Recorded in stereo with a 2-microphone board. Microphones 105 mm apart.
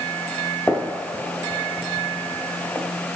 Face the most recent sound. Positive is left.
turn(degrees=15)  # may be behind; listen again after turning